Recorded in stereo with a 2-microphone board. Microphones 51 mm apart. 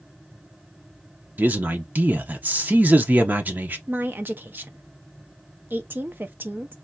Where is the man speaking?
35° right (ahead or behind), 0.7 m.